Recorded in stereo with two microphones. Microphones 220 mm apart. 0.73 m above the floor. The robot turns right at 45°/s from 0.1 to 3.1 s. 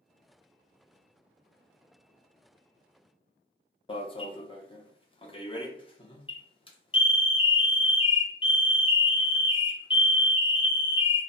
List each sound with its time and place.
3.9 s an alarm: 25° left (ahead or behind), 0.6 m